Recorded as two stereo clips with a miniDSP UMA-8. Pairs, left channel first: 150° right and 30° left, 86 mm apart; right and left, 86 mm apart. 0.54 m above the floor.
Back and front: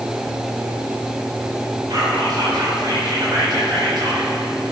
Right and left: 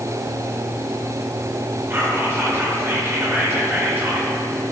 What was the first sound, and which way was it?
Whispering, 35° left.